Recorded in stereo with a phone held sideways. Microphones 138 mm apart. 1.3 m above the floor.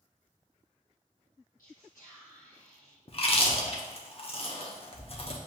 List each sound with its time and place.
1.6 s whispering: 75° left (ahead or behind), 0.8 m
3.1 s chewing: 45° left (ahead or behind), 0.7 m